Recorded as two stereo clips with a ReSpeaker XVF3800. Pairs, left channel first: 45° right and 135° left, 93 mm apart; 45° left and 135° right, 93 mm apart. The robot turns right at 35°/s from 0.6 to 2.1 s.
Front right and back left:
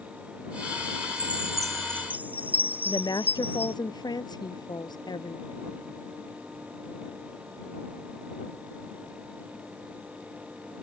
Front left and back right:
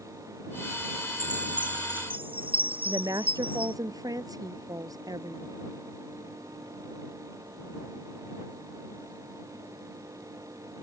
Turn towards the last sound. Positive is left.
turn(degrees=-85)